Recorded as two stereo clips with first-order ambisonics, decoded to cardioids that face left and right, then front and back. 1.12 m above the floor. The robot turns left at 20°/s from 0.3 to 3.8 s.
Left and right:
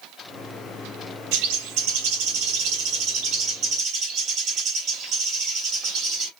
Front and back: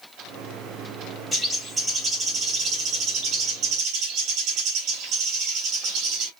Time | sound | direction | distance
1.3 | a bird | 95° right | 2.5 m